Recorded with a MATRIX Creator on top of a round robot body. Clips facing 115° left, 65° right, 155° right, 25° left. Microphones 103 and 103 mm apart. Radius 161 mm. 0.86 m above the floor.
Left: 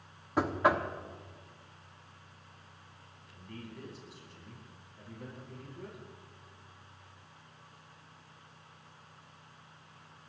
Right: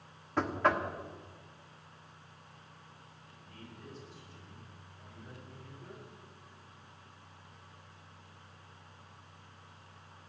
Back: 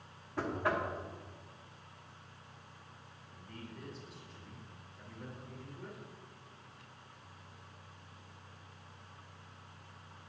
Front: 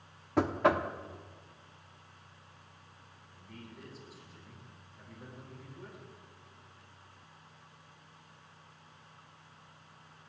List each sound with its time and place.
0.4 s knocking: 30° left, 1.2 m
3.3 s a man speaking: 110° left, 8 m